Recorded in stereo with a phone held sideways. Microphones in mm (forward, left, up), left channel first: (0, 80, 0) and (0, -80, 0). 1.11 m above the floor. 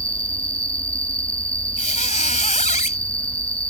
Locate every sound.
0.0 s an insect: 35° left (ahead or behind)
1.8 s a squeak: 50° left (ahead or behind)